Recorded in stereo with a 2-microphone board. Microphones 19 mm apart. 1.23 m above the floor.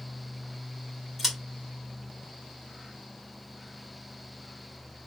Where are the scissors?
10° right (ahead or behind), 3 m.